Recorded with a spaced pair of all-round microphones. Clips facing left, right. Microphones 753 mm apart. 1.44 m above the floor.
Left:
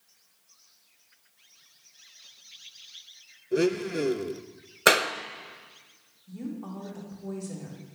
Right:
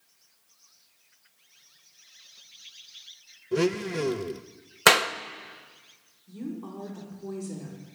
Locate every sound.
3.5 s a blender: 35° right (ahead or behind), 0.8 m
4.9 s a clap: 35° right (ahead or behind), 0.7 m
6.3 s a woman speaking: 20° left (ahead or behind), 4 m